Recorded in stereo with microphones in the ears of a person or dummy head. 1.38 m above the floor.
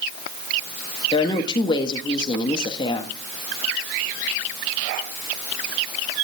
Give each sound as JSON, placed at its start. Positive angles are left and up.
{"t": 1.1, "sound": "a woman speaking", "side_deg": 25, "distance_m": 1.7}